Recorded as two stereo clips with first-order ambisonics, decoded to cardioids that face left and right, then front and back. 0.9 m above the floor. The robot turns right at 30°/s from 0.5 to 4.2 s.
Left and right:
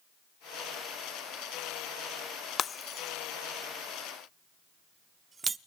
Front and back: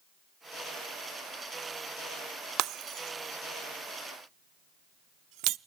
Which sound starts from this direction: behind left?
Breaking glass, at 2.6 s.